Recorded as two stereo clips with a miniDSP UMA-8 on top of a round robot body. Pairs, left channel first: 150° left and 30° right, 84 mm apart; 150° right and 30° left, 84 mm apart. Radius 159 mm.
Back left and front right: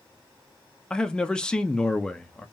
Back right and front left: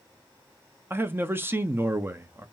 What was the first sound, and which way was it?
A man speaking, 75° left.